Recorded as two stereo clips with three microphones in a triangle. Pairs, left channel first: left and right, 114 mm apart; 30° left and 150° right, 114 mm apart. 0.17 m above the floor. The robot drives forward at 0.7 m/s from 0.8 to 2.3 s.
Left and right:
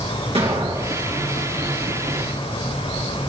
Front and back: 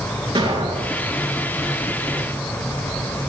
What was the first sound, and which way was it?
An explosion, 110° right.